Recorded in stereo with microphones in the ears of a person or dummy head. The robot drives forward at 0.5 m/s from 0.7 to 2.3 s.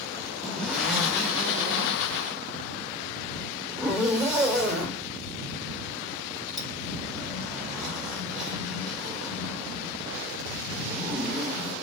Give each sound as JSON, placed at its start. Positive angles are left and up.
{"t": 0.4, "sound": "a zipper", "side_deg": 0, "distance_m": 0.9}